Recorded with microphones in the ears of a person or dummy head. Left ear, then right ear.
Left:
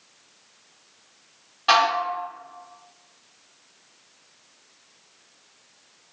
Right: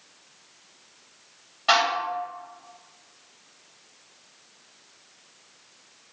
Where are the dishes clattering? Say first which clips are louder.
Left 2 dB; 20° left (ahead or behind), 1.0 m.